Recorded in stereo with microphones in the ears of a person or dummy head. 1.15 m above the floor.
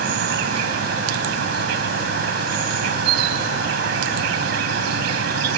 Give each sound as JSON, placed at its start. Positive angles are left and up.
{"t": 0.0, "sound": "an insect", "side_deg": -65}